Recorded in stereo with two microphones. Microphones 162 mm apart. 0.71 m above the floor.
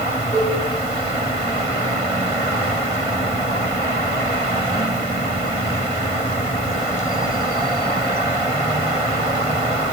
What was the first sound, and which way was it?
A cowbell, 45° left (ahead or behind).